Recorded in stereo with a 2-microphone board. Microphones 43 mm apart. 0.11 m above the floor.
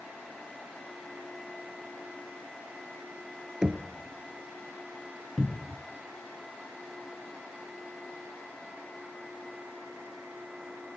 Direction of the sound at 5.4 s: 5° right (ahead or behind).